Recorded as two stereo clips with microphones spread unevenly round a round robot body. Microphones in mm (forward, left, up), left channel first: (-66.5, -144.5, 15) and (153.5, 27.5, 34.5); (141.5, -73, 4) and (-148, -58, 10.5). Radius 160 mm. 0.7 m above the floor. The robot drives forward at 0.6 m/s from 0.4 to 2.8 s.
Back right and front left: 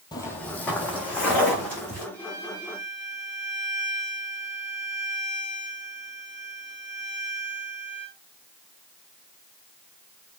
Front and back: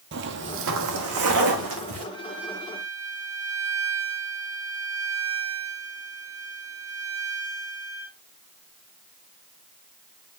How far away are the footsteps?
About 0.9 m.